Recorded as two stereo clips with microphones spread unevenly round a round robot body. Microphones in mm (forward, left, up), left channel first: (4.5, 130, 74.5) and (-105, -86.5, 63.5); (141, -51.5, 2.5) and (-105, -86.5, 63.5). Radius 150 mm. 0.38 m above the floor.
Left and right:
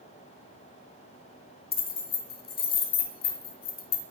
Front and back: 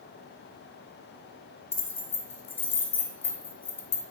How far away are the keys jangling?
About 0.9 m.